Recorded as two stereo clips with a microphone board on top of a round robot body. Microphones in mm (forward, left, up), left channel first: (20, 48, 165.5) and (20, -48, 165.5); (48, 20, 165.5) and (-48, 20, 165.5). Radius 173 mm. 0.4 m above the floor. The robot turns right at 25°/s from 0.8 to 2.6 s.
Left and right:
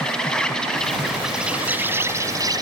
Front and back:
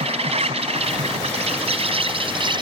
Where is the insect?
175° left; by 2.6 s 140° right.